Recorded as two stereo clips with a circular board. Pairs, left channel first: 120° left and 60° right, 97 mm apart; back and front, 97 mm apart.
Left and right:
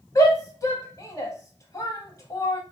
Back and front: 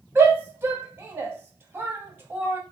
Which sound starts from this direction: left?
A shout, at 0.1 s.